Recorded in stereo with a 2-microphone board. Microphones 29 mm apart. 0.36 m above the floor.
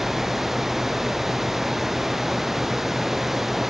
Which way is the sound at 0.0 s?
5° right (ahead or behind).